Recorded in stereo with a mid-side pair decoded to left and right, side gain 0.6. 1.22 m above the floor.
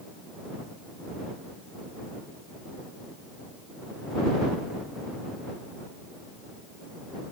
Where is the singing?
No singing in this recording.